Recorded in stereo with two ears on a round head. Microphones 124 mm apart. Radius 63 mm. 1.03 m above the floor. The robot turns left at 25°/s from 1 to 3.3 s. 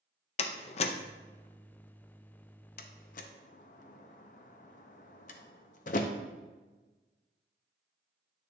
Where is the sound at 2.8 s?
70° left (ahead or behind), 0.6 m; by 6.1 s 60° left (ahead or behind), 0.6 m.